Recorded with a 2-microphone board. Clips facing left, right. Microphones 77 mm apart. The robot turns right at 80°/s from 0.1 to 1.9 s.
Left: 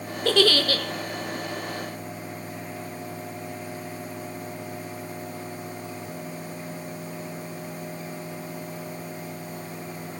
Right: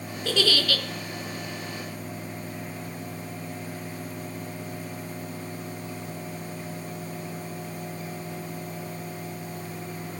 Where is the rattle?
No rattle in this recording.